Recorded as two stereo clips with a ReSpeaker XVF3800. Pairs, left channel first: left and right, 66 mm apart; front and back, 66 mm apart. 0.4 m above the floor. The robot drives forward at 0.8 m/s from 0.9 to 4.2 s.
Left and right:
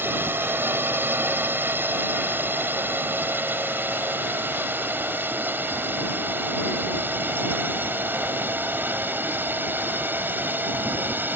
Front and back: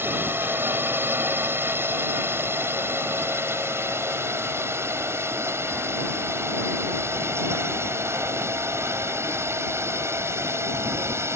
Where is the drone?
135° right; by 11.4 s 145° right.